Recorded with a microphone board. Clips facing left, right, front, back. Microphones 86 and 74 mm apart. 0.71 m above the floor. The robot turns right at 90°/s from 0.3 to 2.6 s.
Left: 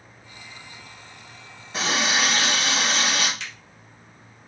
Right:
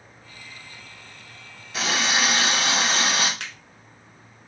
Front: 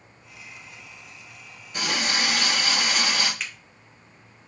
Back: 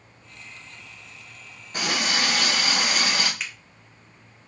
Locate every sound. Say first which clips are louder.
1.7 s a running tap: even, back 1 dB; 145° left, 1.2 m; by 3.3 s 140° right, 1.2 m
3.4 s a finger snap: right 1 dB, even; 95° right, 0.8 m